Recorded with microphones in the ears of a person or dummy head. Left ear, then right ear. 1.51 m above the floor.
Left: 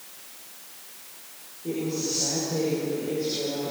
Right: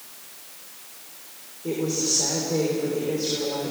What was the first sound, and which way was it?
A woman speaking, 70° right (ahead or behind).